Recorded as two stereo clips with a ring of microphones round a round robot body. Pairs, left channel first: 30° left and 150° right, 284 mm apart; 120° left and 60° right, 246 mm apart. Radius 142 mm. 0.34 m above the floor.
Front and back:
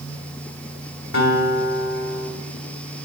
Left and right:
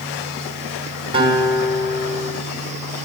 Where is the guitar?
5° left, 2 m.